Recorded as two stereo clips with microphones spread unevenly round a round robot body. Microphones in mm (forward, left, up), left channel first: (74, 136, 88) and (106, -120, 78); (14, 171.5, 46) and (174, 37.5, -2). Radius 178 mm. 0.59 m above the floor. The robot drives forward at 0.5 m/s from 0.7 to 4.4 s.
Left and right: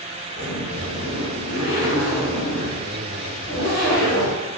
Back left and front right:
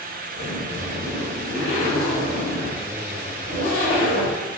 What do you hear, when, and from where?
0.4 s a zipper: 135° left, 1.8 m; by 4.4 s 160° left, 3 m